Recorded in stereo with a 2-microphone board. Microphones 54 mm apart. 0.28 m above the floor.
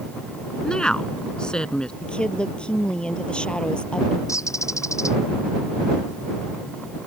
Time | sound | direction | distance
0.6 | a woman speaking | 15° left (ahead or behind) | ?
2.0 | a woman speaking | 20° left (ahead or behind) | ?
4.3 | a bird | 80° left | ?